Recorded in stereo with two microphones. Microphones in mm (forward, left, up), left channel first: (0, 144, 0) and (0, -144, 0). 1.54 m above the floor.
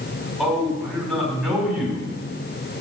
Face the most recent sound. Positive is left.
turn(degrees=0)  # may be behind; listen again after turning